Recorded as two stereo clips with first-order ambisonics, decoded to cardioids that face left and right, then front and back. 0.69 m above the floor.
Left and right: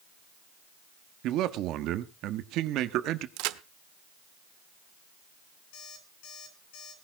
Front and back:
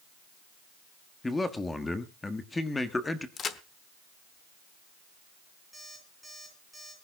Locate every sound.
1.2 s a man speaking: 75° right, 1.2 m
3.4 s a crack: 65° right, 0.9 m
5.7 s an alarm clock: 95° left, 8 m